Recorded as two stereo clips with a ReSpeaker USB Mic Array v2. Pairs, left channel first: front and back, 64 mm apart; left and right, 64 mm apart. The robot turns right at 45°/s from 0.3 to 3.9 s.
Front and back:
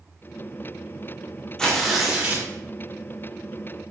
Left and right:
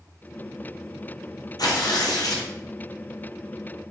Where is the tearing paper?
80° left, 0.8 m; by 2.5 s 120° left, 0.8 m.